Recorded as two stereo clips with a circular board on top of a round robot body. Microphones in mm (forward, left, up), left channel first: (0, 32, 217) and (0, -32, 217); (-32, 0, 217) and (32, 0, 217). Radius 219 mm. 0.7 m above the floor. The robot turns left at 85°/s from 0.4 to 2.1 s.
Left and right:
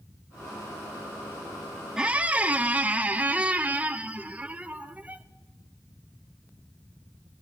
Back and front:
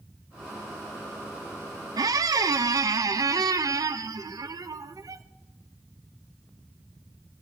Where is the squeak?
10° right, 0.6 m; by 5.2 s 25° right, 0.6 m.